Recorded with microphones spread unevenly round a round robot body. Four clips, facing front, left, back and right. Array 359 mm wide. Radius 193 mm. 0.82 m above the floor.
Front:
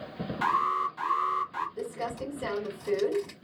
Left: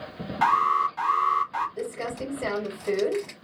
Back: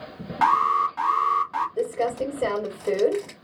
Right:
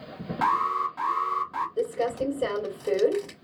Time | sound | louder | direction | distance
0.4 | an alarm | left 3 dB, back 7 dB | 175° right | 3 m
1.8 | crumpling | right 5 dB, back 9 dB | 165° right | 3.5 m